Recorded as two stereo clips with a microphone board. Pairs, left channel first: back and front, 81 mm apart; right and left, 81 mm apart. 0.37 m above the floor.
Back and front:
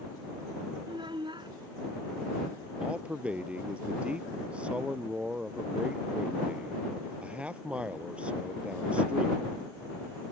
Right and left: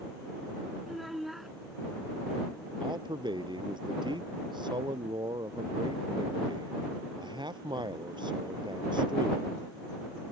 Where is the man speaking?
75° left.